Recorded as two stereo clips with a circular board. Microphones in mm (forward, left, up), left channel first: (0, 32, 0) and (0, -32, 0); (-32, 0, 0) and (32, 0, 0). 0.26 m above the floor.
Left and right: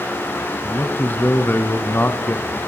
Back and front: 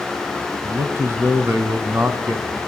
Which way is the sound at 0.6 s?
40° left.